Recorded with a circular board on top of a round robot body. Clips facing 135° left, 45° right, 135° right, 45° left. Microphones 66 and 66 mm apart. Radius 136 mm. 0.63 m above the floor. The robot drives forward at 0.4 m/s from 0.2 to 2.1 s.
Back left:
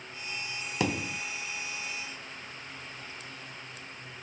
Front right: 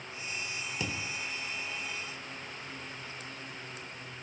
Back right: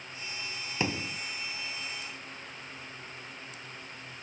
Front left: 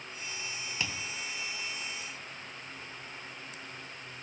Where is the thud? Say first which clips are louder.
Back left 9 dB, back right 7 dB; 165° left.